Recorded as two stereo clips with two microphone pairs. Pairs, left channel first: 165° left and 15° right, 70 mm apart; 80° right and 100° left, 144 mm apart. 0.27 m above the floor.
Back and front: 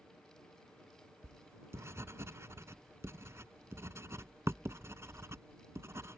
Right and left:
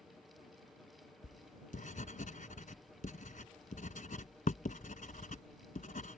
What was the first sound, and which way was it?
Writing, 65° right.